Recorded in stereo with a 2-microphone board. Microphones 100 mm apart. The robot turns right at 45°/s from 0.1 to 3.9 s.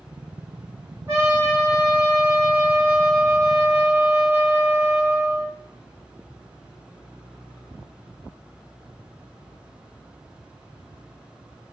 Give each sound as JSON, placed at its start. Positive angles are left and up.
{"t": 1.1, "sound": "a trumpet", "azimuth_deg": -155, "distance_m": 4.5}